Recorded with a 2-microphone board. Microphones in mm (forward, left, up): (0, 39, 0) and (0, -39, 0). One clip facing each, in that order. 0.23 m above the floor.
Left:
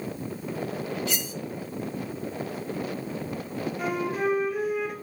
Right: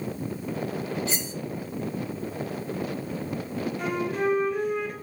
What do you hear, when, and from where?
1.1 s cutlery clinking: 30° right (ahead or behind), 0.9 m
3.8 s a flute: 5° left (ahead or behind), 3 m